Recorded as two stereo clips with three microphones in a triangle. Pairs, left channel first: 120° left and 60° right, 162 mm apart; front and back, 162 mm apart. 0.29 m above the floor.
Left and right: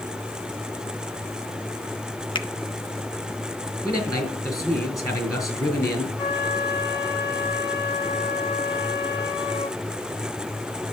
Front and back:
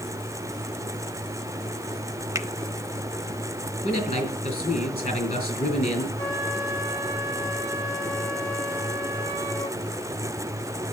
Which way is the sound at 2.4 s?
130° left.